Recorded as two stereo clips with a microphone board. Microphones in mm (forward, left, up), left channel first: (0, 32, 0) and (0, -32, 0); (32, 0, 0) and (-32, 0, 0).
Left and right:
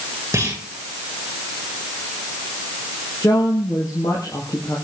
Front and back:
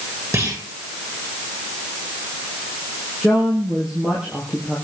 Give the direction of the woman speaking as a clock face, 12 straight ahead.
9 o'clock.